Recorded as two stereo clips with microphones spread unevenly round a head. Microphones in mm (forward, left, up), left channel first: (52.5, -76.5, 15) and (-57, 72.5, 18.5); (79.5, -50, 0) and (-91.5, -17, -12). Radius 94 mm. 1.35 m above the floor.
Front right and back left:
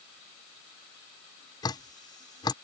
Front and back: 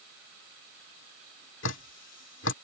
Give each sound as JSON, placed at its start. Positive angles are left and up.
{"t": 1.6, "sound": "dripping", "azimuth_deg": 15}